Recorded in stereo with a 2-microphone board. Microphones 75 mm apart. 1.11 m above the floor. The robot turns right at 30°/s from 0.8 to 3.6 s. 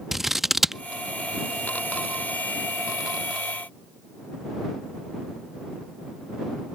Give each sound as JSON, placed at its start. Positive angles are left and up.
{"t": 0.1, "sound": "scissors", "side_deg": -5}